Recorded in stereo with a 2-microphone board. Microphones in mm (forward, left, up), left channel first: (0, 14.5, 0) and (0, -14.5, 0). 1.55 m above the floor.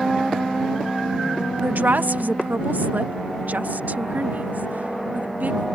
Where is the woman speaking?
75° right (ahead or behind); by 5.7 s 65° right (ahead or behind).